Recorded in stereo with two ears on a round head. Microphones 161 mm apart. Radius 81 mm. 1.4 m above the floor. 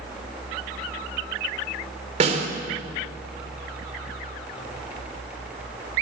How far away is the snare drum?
About 3 m.